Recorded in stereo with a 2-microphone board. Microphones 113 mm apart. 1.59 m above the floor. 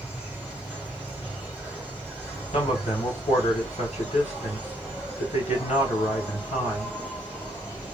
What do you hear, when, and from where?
0.0 s an insect: 10° right (ahead or behind), 1.7 m
2.5 s a man speaking: 85° left, 1.7 m